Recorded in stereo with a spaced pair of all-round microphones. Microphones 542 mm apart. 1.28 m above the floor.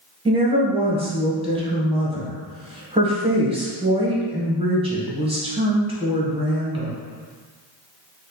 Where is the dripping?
No dripping in this recording.